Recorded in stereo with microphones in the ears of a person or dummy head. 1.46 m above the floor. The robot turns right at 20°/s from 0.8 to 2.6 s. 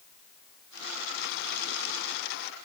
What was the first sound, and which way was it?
Only background noise.